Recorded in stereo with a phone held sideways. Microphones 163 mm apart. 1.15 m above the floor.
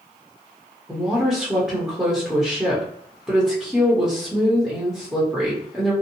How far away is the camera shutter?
I don't hear a camera shutter.